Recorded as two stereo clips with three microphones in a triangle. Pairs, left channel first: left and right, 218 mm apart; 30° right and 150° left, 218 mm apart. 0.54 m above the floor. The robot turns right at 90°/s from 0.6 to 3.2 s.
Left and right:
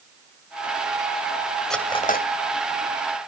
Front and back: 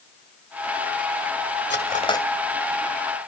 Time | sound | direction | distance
1.7 | cutlery clinking | straight ahead | 1.5 m